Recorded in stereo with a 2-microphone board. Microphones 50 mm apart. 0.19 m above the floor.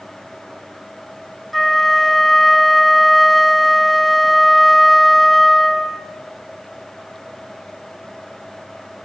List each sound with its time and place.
1.5 s a flute: centre (ahead or behind), 1.0 m